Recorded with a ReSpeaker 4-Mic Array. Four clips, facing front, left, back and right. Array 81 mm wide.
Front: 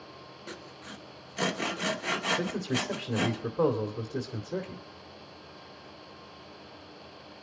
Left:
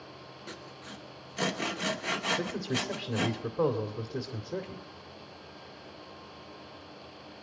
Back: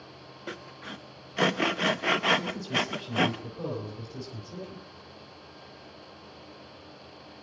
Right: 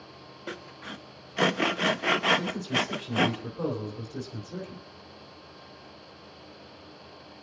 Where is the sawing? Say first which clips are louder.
Right 7 dB, back 5 dB; 130° right, 0.7 m.